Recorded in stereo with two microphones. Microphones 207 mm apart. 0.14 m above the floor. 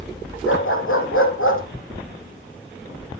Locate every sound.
0.5 s a dog barking: 80° left, 3 m